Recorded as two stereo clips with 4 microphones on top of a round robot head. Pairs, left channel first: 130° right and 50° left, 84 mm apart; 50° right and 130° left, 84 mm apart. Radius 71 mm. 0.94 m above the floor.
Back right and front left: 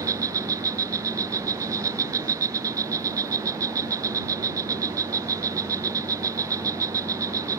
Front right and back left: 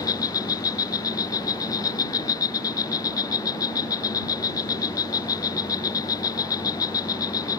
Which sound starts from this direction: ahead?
An insect, at 0.0 s.